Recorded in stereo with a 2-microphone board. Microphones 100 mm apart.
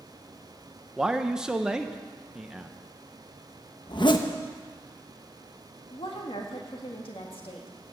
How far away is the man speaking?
About 0.7 m.